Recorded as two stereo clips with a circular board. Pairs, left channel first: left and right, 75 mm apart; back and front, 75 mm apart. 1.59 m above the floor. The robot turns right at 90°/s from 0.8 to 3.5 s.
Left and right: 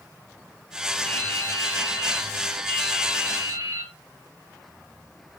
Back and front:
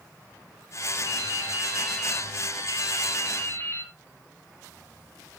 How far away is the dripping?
About 4.5 m.